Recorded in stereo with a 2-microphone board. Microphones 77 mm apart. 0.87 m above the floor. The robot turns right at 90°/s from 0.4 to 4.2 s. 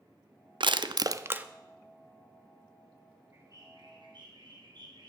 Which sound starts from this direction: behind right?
A bird, at 3.3 s.